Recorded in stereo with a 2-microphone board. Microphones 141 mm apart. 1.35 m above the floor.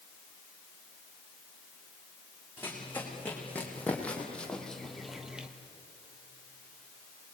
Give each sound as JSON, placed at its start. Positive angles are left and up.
{"t": 2.6, "sound": "running footsteps", "side_deg": 15, "distance_m": 5.5}